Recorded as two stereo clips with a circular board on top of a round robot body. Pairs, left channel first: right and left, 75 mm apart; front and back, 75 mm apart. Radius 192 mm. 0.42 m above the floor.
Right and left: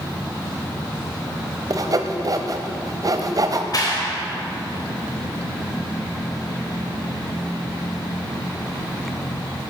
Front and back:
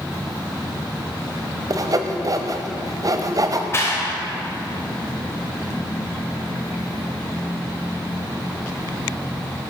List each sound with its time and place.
1.7 s sawing: 135° left, 0.7 m
3.7 s a clap: 55° right, 3 m